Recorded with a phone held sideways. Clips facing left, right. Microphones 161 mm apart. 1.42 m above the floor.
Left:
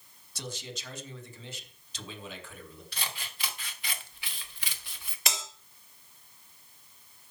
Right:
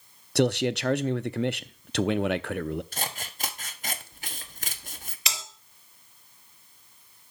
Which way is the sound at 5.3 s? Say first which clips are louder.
Left 2 dB; 55° left (ahead or behind).